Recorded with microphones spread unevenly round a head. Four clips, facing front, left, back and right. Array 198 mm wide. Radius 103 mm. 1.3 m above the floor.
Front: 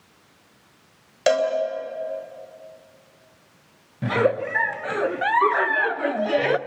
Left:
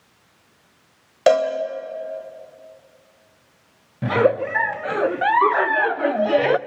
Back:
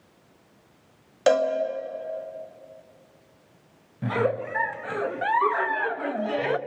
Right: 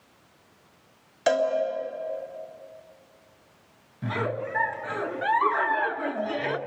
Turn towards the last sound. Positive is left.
turn(degrees=80)